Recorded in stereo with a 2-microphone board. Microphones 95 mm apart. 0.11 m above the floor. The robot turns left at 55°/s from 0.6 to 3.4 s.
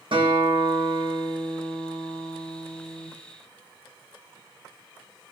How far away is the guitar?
About 4 m.